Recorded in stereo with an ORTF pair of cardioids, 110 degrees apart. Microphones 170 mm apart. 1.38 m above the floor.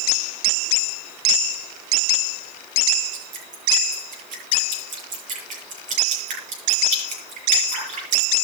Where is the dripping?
50° right, 8 m.